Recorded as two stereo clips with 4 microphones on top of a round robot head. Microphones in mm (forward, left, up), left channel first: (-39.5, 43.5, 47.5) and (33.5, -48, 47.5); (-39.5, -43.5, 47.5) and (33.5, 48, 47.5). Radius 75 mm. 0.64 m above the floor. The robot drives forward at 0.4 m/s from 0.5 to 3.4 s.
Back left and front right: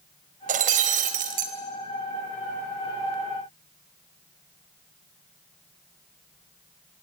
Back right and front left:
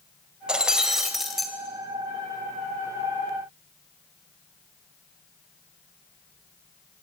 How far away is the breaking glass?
About 2 m.